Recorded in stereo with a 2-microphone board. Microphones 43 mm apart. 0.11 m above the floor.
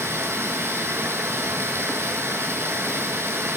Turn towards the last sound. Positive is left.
turn(degrees=-80)